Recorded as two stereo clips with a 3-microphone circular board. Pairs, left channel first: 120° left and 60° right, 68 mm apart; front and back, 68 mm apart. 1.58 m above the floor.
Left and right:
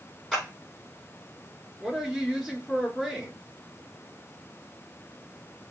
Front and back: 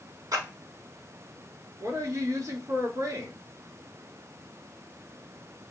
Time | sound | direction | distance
0.3 | a clap | 160° right | 3 m
1.8 | a woman speaking | 155° right | 3 m